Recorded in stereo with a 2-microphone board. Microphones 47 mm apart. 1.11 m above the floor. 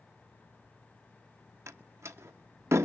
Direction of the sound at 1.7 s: 80° right.